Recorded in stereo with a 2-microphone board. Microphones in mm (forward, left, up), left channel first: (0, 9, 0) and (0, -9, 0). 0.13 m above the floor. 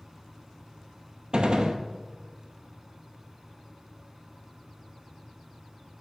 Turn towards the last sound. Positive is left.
turn(degrees=-55)  # may be behind; listen again after turning